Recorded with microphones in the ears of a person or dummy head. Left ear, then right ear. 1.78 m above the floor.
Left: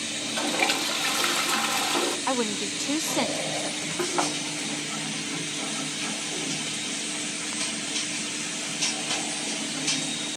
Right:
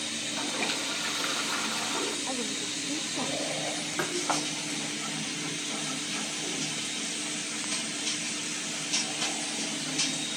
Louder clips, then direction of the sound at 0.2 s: Left 8 dB; 20° left (ahead or behind).